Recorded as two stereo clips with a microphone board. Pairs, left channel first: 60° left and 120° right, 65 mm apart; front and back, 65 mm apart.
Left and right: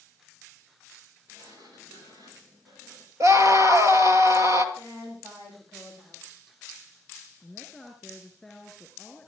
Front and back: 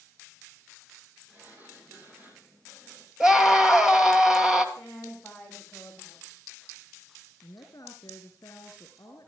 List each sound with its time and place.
1.3 s a sliding door: 115° right, 9 m
3.2 s a scream: 100° right, 2.5 m
4.8 s a woman speaking: 85° right, 8 m
7.4 s a woman speaking: 30° right, 4 m